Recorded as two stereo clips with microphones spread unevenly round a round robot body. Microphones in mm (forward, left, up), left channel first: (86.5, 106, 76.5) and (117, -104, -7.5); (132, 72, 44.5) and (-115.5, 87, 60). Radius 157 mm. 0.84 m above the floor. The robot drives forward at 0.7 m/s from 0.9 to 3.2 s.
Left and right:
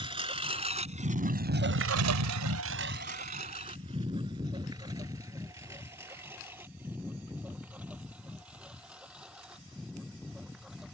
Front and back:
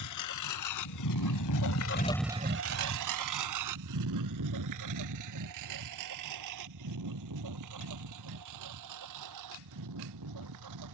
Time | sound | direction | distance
0.0 | a lawn mower | 10° right | ?